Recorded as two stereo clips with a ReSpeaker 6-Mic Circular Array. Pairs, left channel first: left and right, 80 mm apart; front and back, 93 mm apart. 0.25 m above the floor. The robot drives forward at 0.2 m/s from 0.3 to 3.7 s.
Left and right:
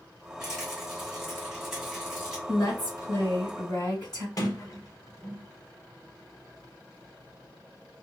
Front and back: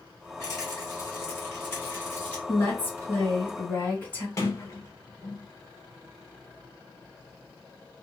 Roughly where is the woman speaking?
Ahead left.